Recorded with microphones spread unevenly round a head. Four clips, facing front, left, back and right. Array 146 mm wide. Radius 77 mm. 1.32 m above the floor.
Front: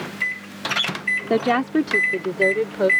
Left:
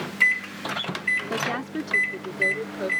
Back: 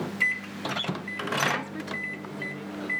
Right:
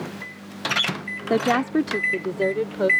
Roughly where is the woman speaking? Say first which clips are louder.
Right 12 dB, front 11 dB; ahead right.